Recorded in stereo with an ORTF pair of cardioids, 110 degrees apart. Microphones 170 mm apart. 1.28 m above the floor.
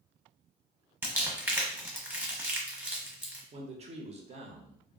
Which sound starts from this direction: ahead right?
A man speaking, at 3.5 s.